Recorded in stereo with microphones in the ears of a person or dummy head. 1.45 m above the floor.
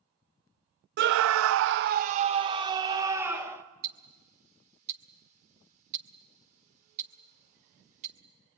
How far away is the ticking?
About 1.9 m.